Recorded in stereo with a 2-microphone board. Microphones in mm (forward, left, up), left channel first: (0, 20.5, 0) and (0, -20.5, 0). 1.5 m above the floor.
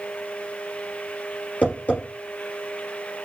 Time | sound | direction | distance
1.6 | tapping | 35° left (ahead or behind) | 3.5 m